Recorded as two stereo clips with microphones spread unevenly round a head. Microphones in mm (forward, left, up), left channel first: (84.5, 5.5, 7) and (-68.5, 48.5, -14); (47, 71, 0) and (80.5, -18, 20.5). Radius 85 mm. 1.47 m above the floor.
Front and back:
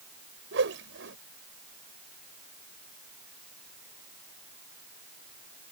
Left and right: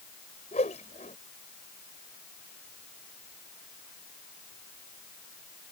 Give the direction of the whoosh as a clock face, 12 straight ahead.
7 o'clock.